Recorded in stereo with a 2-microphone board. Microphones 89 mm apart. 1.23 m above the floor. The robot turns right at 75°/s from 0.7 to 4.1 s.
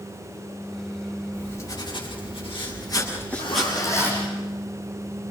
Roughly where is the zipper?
Left.